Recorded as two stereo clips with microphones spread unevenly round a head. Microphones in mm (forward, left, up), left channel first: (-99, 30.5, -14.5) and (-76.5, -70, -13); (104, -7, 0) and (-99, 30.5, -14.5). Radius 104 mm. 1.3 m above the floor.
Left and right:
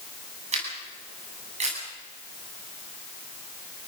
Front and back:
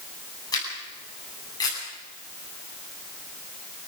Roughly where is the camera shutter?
Right.